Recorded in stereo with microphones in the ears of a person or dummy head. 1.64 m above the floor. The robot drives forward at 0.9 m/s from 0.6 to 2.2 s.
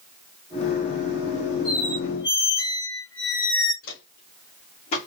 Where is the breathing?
No breathing in this recording.